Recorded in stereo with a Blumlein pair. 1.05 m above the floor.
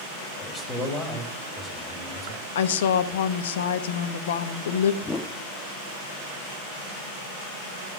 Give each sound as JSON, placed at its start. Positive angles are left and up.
{"t": 0.4, "sound": "a man speaking", "azimuth_deg": 5, "distance_m": 5.0}
{"t": 2.5, "sound": "a woman speaking", "azimuth_deg": 55, "distance_m": 1.2}
{"t": 5.0, "sound": "a whoosh", "azimuth_deg": 10, "distance_m": 1.1}